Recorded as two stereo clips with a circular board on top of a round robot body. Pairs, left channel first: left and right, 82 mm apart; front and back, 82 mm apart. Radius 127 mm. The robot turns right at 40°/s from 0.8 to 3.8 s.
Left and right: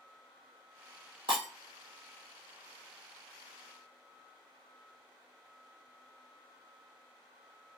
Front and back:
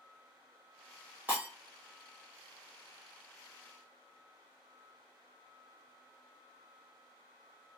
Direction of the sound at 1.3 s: 110° right.